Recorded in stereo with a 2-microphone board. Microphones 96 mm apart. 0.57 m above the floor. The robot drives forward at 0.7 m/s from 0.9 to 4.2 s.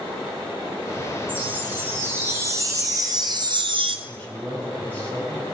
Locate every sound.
1.3 s a chime: 20° right (ahead or behind), 2.5 m; by 4.0 s 70° right (ahead or behind), 0.9 m
4.1 s a man speaking: 20° left (ahead or behind), 4 m